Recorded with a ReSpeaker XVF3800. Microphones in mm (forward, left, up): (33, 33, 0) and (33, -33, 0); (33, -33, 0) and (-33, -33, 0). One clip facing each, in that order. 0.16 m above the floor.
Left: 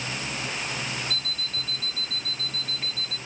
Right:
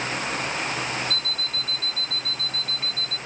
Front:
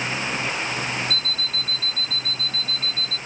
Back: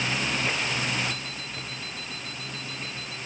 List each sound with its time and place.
1.1 s an alarm clock: 5° left